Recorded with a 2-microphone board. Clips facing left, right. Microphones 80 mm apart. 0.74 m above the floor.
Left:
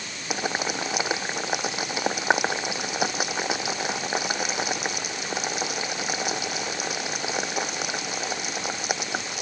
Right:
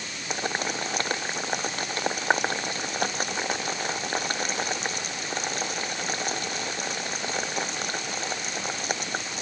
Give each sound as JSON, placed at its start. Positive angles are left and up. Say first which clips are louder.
{"t": 0.3, "sound": "boiling", "louder": "left 2 dB", "side_deg": 5}